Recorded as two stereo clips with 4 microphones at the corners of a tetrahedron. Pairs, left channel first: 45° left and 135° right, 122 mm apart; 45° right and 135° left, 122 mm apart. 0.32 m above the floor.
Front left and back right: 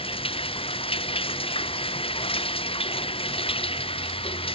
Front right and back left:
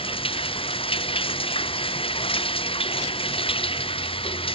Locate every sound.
0.0 s running water: straight ahead